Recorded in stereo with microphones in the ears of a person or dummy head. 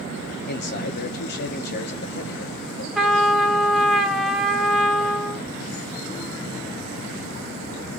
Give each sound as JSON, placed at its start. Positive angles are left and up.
{"t": 0.5, "sound": "a man speaking", "side_deg": 50, "distance_m": 0.6}
{"t": 3.0, "sound": "a trumpet", "side_deg": -5, "distance_m": 0.6}